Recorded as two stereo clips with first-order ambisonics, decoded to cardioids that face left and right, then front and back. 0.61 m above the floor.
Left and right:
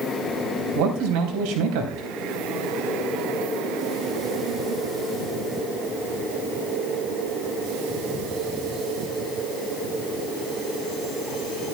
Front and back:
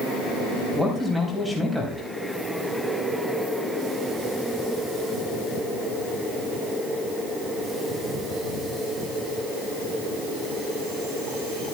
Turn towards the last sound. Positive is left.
turn(degrees=-95)